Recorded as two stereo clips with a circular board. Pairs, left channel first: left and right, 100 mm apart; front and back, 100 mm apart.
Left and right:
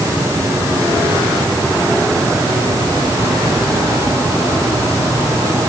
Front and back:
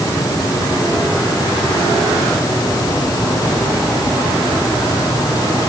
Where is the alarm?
I don't hear an alarm.